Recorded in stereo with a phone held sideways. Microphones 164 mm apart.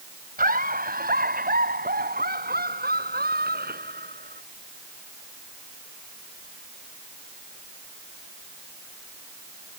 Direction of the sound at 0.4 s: 65° right (ahead or behind).